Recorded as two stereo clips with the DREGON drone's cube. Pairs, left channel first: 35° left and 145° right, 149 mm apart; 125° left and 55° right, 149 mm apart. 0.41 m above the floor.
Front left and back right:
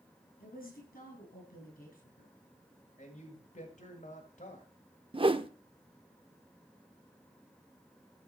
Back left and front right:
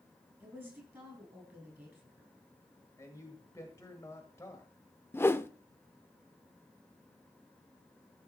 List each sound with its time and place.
0.4 s a woman speaking: 20° left, 7 m
3.0 s a man speaking: 55° left, 1.8 m
5.1 s a whoosh: 170° right, 0.7 m